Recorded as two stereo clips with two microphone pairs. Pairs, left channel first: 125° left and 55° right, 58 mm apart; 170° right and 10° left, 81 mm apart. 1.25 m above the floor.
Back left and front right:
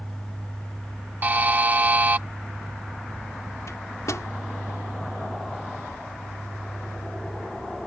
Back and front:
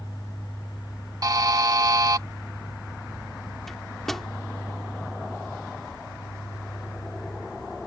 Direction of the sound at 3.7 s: 105° left.